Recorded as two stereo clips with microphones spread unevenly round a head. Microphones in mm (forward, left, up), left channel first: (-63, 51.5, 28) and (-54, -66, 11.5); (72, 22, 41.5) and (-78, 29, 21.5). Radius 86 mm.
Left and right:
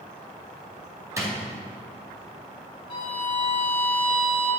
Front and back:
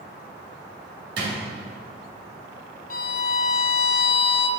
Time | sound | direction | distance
1.2 | a drawer | 150° right | 1.9 m
2.9 | a violin | 30° left | 0.5 m